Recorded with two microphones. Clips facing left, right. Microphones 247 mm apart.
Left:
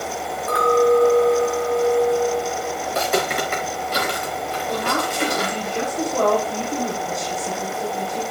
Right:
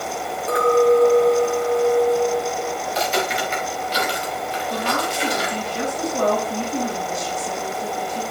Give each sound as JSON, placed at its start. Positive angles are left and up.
{"t": 0.5, "sound": "a clink", "side_deg": -25, "distance_m": 1.9}
{"t": 2.9, "sound": "footsteps", "side_deg": 60, "distance_m": 2.5}
{"t": 4.7, "sound": "a woman speaking", "side_deg": 60, "distance_m": 4.0}